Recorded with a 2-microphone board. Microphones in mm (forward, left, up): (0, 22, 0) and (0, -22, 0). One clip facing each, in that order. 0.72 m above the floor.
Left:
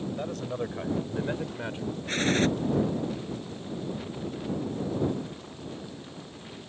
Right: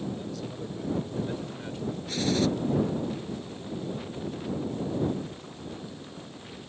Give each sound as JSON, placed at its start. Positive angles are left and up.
{"t": 0.2, "sound": "a man speaking", "side_deg": 55}
{"t": 2.1, "sound": "a gunshot", "side_deg": 45}